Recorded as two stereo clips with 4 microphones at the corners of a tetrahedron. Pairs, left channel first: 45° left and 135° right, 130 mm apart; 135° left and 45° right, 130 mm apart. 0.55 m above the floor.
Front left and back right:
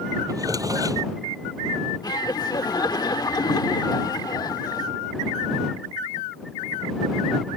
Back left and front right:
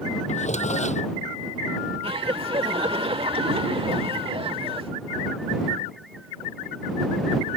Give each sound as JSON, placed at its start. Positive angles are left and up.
{"t": 0.3, "sound": "a drawer", "azimuth_deg": 160}
{"t": 2.0, "sound": "laughter", "azimuth_deg": -10}